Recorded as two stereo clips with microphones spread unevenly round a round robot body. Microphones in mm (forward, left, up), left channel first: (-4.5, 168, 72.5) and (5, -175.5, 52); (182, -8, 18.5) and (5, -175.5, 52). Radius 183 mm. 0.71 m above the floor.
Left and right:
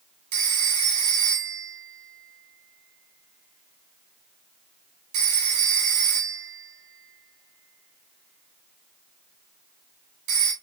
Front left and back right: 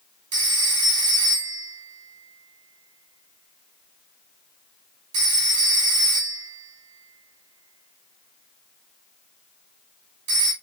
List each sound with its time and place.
0.3 s a phone ringing: 120° right, 1.6 m